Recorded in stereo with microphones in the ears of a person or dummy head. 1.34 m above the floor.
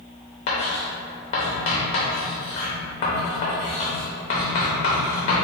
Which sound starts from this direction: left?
Writing, at 0.5 s.